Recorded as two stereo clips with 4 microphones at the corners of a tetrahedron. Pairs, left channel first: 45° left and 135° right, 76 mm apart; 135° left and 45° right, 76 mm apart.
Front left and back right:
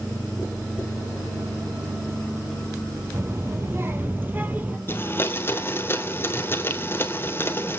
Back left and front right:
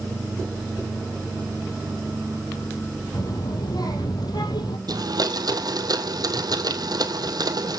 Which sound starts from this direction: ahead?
A blender, at 4.9 s.